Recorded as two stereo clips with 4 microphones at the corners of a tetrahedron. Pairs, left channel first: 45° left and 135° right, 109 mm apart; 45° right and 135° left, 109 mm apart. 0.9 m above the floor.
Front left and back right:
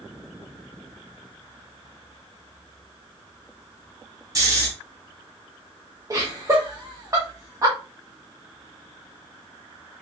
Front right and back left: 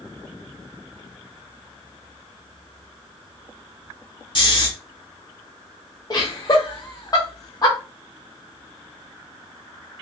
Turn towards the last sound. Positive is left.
turn(degrees=-85)